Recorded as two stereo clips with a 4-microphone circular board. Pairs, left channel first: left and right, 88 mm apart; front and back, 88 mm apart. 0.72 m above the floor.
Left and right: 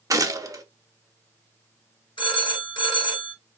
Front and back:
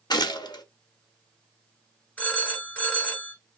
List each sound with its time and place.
0.1 s a gunshot: 40° right, 0.6 m
2.2 s a phone ringing: 75° left, 1.9 m